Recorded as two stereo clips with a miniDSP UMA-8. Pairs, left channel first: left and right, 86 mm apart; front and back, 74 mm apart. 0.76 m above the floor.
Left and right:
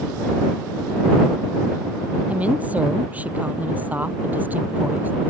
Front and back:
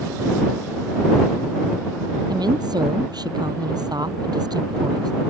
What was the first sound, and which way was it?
A woman speaking, 165° right.